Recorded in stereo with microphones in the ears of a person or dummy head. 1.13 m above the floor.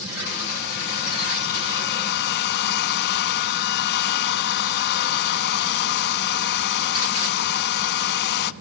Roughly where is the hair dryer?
Left.